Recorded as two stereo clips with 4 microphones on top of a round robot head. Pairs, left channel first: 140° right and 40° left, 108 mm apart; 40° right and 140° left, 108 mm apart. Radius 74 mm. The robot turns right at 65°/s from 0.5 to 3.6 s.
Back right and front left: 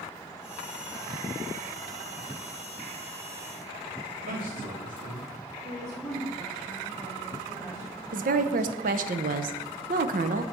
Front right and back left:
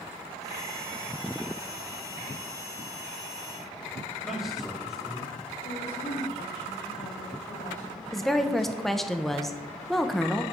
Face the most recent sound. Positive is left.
turn(degrees=45)